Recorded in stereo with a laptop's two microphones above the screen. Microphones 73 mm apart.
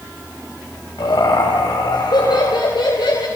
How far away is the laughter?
About 4.5 m.